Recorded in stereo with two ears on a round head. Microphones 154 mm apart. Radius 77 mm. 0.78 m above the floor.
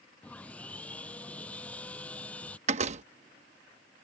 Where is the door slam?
45° right (ahead or behind).